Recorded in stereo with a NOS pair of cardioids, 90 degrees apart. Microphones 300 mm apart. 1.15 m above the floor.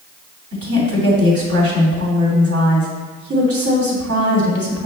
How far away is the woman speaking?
About 3 m.